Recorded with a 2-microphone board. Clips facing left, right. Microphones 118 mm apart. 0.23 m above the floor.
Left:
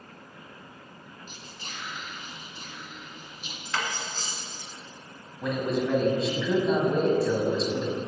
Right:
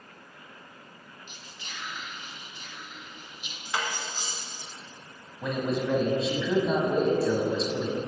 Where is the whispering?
45° left (ahead or behind), 1.6 m.